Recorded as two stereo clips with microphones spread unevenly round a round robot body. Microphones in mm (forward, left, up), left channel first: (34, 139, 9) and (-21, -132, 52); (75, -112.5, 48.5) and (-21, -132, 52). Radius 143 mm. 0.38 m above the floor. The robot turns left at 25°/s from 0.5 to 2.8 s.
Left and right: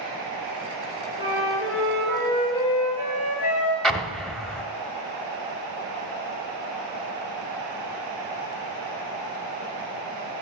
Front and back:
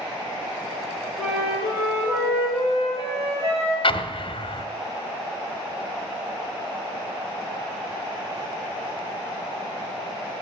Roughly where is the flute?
Behind left.